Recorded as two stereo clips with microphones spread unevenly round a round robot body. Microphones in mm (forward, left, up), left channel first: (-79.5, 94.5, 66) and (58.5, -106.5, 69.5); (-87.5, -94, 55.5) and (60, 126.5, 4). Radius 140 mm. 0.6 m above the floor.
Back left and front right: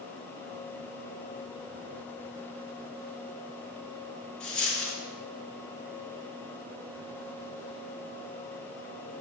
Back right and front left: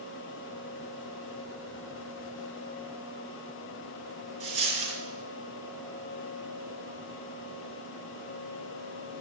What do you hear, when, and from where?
4.4 s a dropped coin: 40° left, 4 m